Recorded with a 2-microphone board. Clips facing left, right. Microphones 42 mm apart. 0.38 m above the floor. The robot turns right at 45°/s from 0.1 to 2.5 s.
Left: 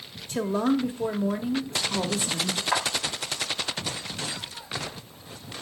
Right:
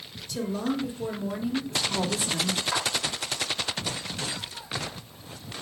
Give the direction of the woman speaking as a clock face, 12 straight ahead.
9 o'clock.